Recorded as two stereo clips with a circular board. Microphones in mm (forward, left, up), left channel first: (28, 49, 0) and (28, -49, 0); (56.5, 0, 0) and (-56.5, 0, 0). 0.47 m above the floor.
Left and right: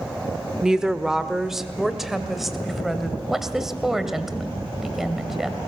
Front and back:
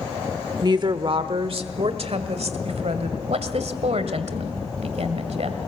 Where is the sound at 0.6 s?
170° right, 1.0 m; by 3.2 s straight behind, 2.5 m.